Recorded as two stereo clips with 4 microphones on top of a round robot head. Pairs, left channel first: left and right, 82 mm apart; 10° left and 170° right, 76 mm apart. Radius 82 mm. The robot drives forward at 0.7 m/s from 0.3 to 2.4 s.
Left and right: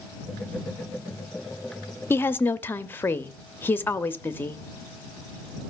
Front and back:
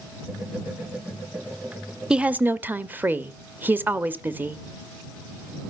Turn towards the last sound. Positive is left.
turn(degrees=140)